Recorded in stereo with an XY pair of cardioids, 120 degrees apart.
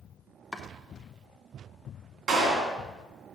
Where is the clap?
55° right, 2.5 m.